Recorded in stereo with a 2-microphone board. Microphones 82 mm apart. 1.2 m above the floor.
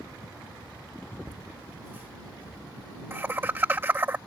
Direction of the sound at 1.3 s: 25° right (ahead or behind).